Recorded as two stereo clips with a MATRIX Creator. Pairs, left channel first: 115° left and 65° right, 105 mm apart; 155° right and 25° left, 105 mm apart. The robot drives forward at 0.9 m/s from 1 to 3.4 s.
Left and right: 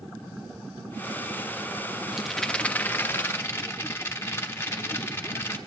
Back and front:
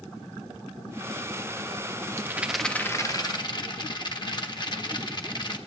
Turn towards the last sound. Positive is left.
turn(degrees=175)